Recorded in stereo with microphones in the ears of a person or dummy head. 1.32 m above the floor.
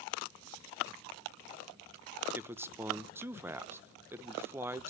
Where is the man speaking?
15° right (ahead or behind), 1.1 m.